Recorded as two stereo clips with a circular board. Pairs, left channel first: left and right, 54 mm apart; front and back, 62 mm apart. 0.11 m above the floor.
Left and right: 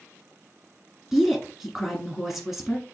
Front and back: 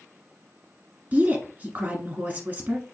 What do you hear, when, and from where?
1.1 s a woman speaking: 170° right, 1.6 m